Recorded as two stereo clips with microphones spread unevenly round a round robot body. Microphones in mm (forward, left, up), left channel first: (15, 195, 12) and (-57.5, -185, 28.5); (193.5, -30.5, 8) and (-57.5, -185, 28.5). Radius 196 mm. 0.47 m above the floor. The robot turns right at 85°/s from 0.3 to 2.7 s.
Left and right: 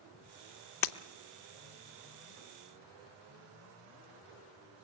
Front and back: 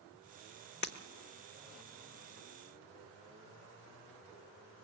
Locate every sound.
0.8 s breaking glass: 75° left, 0.7 m; by 0.9 s 80° left, 0.7 m